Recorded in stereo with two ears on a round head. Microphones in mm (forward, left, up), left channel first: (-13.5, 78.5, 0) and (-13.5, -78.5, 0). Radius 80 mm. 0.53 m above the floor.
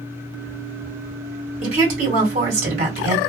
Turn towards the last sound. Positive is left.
turn(degrees=-45)  # may be behind; listen again after turning